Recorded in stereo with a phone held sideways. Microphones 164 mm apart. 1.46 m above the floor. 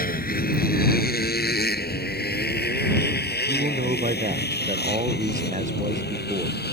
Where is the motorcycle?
60° left (ahead or behind); by 6.7 s 85° left.